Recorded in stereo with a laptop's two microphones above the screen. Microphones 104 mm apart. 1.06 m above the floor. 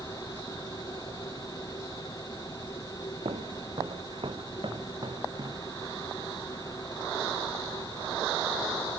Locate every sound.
0.0 s a machine running: 35° left (ahead or behind)
3.2 s footsteps: 65° right (ahead or behind); by 5.7 s 40° right (ahead or behind)